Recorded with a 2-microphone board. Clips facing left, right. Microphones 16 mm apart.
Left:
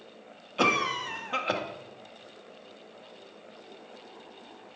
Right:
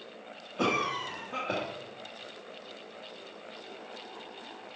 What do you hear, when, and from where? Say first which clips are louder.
0.6 s a cough: left 4 dB; 50° left (ahead or behind), 1.2 m